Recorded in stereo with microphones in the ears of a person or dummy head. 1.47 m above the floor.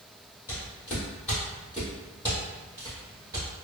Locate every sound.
0.5 s footsteps: 20° left (ahead or behind), 1.6 m; by 3.5 s 15° right (ahead or behind), 1.5 m